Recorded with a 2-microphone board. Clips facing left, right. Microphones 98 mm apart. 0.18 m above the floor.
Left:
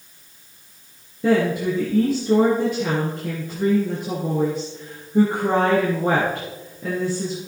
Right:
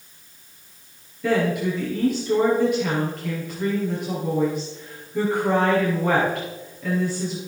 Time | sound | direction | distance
1.2 | a woman speaking | 35° left (ahead or behind) | 4 m